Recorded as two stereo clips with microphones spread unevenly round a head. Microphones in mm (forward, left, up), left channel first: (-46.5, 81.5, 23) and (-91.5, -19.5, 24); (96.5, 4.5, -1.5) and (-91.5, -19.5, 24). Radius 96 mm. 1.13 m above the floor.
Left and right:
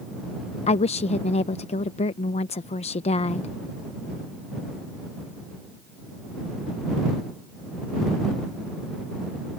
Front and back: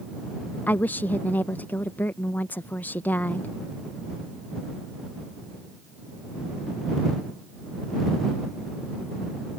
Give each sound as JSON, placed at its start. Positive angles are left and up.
{"t": 0.7, "sound": "a woman speaking", "azimuth_deg": 85}